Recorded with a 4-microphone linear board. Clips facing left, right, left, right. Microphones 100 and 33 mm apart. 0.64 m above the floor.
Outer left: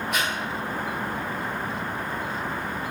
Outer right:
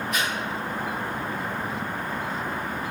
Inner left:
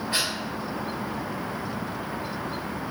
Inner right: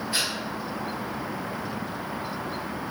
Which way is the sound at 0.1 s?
65° left (ahead or behind).